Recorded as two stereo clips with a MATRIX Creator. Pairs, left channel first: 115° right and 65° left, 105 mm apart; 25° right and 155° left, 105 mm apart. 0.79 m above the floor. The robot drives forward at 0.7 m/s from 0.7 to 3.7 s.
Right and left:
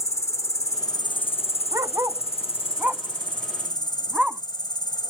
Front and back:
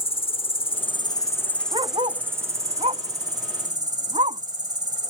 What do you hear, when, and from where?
0.0 s an insect: 55° right; by 5.1 s 160° right
1.7 s a dog barking: 125° left; by 4.4 s 150° left